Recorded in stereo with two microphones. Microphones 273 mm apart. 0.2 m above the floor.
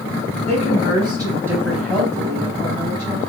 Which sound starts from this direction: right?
A woman speaking, at 0.5 s.